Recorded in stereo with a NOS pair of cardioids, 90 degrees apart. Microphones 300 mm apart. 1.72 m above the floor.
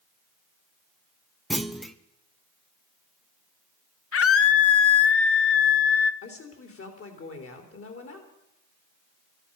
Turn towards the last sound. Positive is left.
turn(degrees=45)